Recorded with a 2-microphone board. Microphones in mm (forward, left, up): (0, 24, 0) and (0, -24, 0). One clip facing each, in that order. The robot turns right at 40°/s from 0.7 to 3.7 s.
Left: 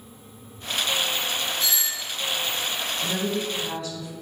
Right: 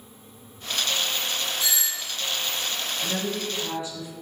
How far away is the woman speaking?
About 1.7 m.